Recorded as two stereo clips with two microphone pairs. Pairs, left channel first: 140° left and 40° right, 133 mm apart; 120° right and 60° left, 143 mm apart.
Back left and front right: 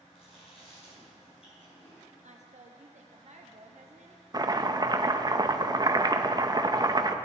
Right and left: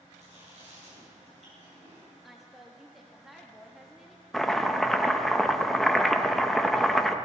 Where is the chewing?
100° left, 5.5 m.